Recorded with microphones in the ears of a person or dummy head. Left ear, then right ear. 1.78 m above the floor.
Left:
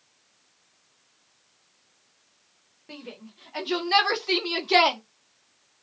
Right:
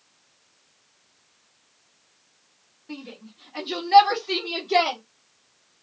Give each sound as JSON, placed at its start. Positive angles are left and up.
{"t": 2.9, "sound": "a shout", "side_deg": 30, "distance_m": 1.2}